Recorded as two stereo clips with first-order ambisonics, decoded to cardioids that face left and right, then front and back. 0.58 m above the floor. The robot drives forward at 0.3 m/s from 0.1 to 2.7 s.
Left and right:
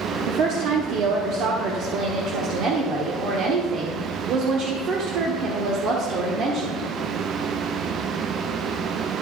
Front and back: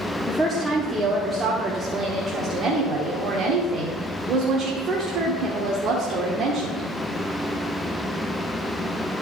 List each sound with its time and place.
0.3 s a woman speaking: 85° right, 1.0 m; by 6.9 s 130° right, 1.2 m